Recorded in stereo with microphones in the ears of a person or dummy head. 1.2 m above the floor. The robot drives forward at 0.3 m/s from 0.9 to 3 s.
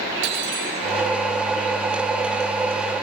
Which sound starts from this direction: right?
Cutlery clinking, at 0.2 s.